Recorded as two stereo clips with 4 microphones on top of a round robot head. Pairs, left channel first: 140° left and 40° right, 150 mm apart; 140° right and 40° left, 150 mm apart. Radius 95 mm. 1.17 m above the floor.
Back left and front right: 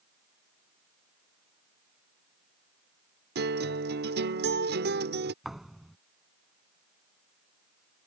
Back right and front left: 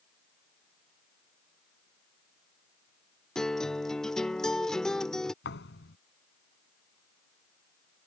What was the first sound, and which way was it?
A guitar, 55° right.